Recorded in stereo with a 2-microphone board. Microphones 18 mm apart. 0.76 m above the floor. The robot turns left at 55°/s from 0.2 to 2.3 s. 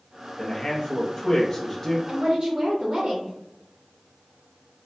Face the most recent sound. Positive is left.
turn(degrees=-50)  # may be behind; listen again after turning